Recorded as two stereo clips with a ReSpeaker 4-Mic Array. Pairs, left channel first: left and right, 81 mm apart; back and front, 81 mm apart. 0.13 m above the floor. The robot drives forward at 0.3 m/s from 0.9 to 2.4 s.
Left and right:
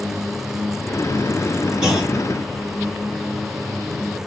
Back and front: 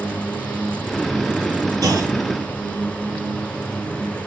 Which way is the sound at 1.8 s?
10° right.